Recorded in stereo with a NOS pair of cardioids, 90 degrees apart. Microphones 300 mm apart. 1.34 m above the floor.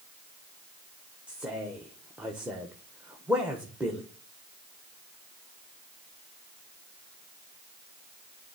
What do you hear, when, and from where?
1.3 s a man speaking: 5° right, 0.9 m